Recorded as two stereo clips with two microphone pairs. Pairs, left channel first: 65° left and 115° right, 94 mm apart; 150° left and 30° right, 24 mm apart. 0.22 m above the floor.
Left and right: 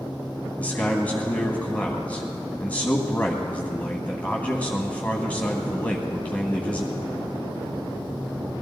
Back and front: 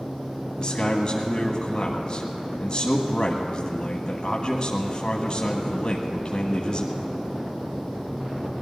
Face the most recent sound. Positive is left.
turn(degrees=130)